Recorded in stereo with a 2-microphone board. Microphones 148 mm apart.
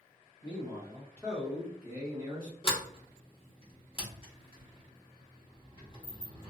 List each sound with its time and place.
0.4 s a man speaking: 30° left (ahead or behind), 1.2 m; by 2.5 s 30° right (ahead or behind), 1.2 m
2.6 s a sliding door: 35° left (ahead or behind), 1.0 m